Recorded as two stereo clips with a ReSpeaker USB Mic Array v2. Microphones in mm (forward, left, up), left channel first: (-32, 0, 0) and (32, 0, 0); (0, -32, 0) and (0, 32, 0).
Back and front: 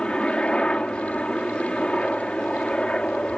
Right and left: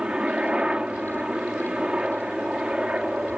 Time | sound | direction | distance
0.0 | a helicopter | 135° left | ?